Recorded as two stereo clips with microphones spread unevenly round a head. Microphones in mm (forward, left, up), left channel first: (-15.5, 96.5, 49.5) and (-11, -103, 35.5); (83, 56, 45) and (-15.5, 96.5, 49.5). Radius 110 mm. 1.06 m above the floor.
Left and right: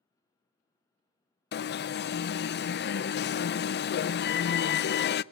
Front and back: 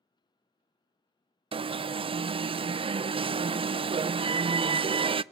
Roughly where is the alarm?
Behind left.